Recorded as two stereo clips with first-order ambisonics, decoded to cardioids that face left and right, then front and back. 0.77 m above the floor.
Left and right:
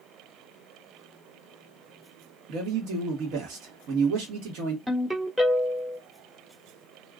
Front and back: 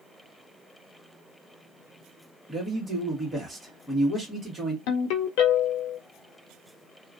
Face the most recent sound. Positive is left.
turn(degrees=-5)